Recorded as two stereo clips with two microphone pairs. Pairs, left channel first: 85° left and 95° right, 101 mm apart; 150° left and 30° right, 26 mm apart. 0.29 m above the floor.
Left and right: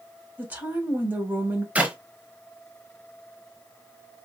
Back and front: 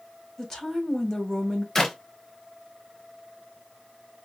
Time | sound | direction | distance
0.4 | a woman speaking | 160° right | 1.8 m
1.8 | a clap | 160° right | 0.9 m